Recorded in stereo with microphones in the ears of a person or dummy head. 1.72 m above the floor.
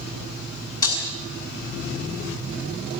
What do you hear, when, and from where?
0.8 s breaking glass: 25° left (ahead or behind), 6.5 m